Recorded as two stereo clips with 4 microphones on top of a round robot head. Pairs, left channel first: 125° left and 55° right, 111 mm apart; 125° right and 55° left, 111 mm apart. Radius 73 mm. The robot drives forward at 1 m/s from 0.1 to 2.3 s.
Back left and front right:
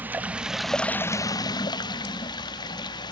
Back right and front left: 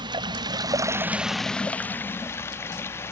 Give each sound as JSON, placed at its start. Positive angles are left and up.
{"t": 0.0, "sound": "running water", "azimuth_deg": 15, "distance_m": 1.1}